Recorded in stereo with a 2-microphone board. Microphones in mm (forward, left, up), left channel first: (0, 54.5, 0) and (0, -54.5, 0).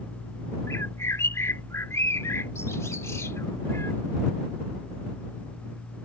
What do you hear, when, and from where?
0.7 s a bird: 25° left (ahead or behind)